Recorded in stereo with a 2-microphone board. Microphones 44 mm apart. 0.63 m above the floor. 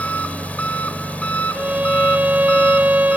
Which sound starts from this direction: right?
A violin, at 1.5 s.